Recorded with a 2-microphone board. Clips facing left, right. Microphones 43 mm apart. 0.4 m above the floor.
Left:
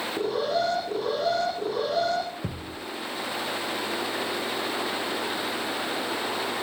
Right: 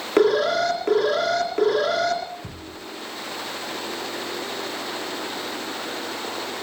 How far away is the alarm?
About 4 m.